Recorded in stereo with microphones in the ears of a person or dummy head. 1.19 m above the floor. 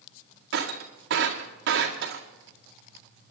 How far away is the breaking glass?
About 1.6 m.